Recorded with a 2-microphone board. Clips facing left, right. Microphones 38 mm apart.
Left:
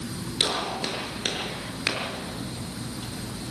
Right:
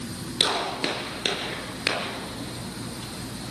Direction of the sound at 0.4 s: 25° right (ahead or behind).